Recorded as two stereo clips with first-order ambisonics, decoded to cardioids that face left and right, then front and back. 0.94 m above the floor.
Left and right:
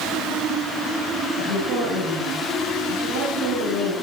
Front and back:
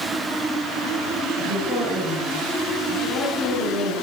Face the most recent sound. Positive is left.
turn(degrees=-55)